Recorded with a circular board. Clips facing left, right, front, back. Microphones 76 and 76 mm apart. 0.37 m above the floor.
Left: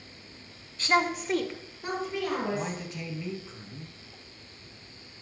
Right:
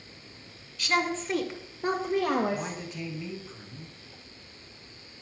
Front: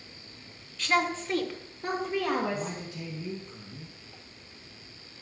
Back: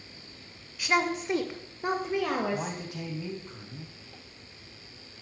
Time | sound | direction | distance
0.8 | a woman speaking | 110° left | 1.2 m
2.5 | a man speaking | straight behind | 3 m